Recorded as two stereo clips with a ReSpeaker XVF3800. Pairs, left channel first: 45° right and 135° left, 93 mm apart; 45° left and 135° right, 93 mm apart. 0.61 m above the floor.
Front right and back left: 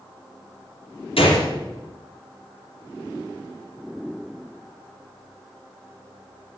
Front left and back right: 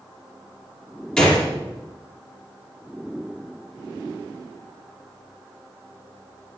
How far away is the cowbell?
No cowbell in this recording.